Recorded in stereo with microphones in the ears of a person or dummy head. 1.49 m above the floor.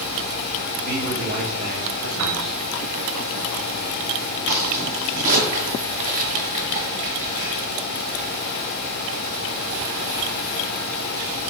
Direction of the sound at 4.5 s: 35° right (ahead or behind).